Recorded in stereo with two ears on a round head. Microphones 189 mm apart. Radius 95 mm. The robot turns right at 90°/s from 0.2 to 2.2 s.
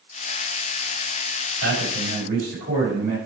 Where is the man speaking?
105° right, 4.5 m; by 3.2 s 50° right, 4.5 m.